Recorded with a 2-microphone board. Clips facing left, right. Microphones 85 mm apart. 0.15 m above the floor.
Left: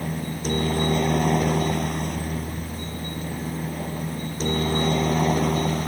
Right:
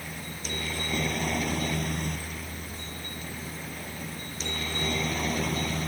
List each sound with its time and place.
0.0 s a helicopter: 45° left (ahead or behind); by 5.9 s 40° left (ahead or behind)